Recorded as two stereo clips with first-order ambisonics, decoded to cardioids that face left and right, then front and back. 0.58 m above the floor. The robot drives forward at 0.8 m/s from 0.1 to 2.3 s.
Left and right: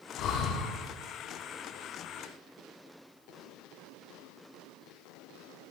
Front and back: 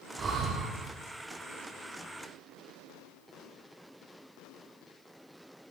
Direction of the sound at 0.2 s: 115° left.